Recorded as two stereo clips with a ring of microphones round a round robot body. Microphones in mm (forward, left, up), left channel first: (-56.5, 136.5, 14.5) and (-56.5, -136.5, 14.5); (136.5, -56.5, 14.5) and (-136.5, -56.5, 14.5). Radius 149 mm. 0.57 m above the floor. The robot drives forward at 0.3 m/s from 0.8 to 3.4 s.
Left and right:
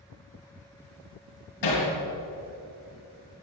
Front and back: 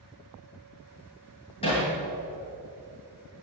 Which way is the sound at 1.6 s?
75° left.